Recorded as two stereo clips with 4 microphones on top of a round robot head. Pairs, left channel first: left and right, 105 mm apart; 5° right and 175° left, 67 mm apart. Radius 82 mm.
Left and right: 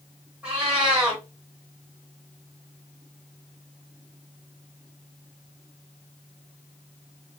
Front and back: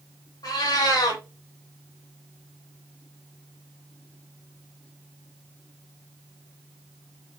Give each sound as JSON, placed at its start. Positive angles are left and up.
{"t": 0.4, "sound": "a cat meowing", "azimuth_deg": -10, "distance_m": 1.0}